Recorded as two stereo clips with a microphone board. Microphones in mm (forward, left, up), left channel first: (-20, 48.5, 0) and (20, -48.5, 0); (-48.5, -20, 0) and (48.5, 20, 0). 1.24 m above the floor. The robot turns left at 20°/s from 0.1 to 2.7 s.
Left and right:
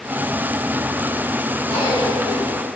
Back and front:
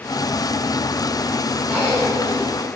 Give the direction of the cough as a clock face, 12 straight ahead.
9 o'clock.